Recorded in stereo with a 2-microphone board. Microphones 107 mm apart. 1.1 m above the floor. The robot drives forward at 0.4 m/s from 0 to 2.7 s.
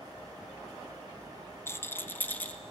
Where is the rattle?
25° left (ahead or behind), 0.6 m; by 2.6 s 15° left (ahead or behind), 0.9 m.